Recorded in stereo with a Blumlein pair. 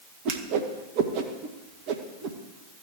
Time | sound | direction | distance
0.2 | a whoosh | 45° right | 1.7 m